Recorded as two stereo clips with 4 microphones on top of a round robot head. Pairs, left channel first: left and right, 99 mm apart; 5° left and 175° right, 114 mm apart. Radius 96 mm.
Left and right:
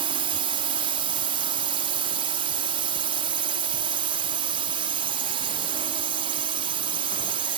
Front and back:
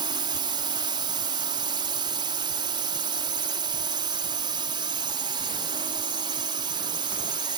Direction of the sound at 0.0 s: 120° right.